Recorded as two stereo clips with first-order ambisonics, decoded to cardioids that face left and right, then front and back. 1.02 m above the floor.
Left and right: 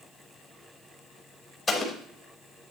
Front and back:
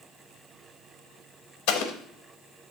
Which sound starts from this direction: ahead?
An explosion, at 1.7 s.